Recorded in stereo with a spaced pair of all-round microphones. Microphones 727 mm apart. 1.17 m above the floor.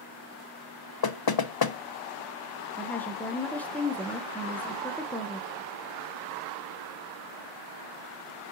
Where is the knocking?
35° left (ahead or behind), 0.5 m.